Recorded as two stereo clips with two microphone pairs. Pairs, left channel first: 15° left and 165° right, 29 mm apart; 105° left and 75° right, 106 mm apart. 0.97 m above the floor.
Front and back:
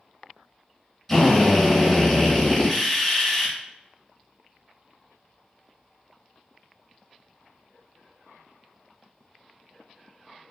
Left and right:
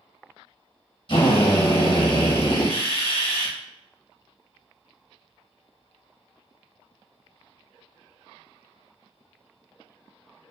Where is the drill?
100° left, 1.0 m.